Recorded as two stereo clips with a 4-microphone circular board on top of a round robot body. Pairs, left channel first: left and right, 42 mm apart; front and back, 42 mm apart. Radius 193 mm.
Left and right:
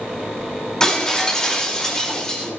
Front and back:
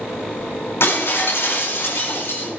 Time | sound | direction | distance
0.8 | breaking glass | 15° left | 5 m